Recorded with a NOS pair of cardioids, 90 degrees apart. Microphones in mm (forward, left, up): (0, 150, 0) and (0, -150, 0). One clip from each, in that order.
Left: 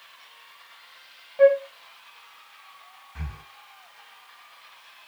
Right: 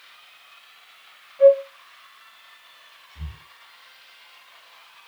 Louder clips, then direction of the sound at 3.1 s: Left 7 dB; 60° left.